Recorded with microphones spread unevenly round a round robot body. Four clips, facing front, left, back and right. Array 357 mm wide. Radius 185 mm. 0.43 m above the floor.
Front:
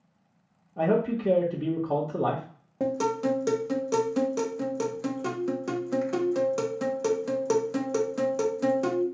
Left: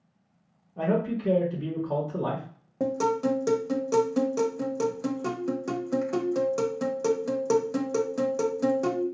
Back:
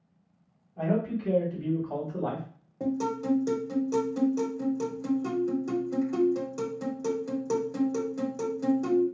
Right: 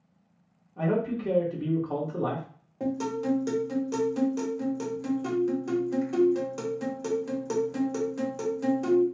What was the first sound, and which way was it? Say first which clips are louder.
A man speaking: left 1 dB, front 4 dB; 15° left.